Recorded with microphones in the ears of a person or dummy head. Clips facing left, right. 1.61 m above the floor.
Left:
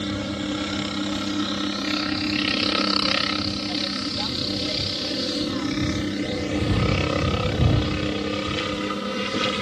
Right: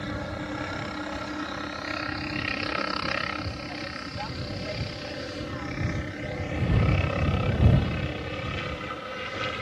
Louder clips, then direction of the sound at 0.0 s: Left 7 dB; 50° left (ahead or behind).